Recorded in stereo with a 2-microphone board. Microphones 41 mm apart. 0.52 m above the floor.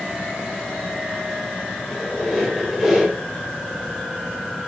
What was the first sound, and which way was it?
A squeak, 10° right (ahead or behind).